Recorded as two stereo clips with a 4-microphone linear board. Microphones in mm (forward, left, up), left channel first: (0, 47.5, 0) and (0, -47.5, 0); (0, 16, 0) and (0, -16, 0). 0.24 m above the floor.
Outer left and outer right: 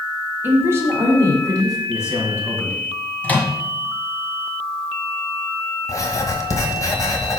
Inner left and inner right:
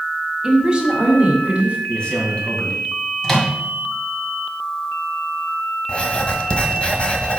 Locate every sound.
0.4 s a woman speaking: 20° right (ahead or behind), 1.5 m; by 1.8 s 40° right (ahead or behind), 2 m
1.9 s a man speaking: 30° left (ahead or behind), 2 m
3.2 s a microwave: 15° left (ahead or behind), 1.5 m
5.9 s writing: 35° left (ahead or behind), 1.1 m